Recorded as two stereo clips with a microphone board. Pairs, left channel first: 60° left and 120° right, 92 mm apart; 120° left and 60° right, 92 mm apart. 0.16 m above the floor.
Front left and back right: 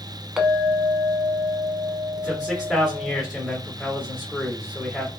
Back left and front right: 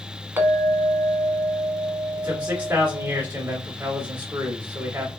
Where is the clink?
45° right, 0.7 m.